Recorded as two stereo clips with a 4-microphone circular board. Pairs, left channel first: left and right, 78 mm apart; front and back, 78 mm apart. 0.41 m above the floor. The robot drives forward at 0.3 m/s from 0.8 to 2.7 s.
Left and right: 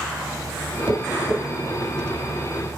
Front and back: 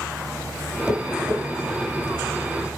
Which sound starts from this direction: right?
Tapping, at 0.9 s.